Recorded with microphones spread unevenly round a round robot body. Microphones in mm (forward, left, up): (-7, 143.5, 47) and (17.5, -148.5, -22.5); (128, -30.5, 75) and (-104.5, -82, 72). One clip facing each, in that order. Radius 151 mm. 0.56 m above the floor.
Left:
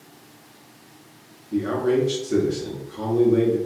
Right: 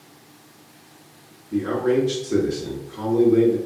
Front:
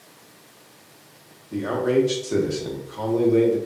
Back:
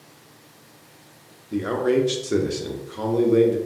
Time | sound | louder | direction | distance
1.5 | a man speaking | right 1 dB, even | 130° right | 0.6 m